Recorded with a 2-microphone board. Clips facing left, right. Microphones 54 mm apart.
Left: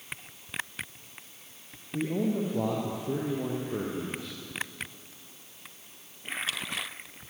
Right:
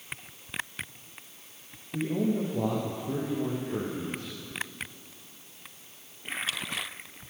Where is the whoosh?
No whoosh in this recording.